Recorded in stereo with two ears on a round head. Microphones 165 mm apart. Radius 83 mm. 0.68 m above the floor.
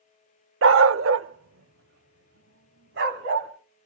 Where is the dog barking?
75° right (ahead or behind), 0.6 m; by 3.5 s 70° right (ahead or behind), 2.5 m.